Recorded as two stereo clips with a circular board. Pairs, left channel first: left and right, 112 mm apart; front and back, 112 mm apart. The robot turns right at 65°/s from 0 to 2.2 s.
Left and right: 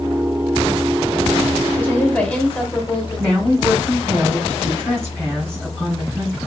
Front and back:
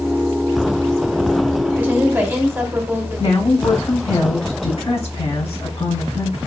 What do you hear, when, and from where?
1.7 s a woman speaking: 120° left, 1.0 m; by 3.7 s 150° left, 1.0 m
3.2 s a woman speaking: 10° left, 2.5 m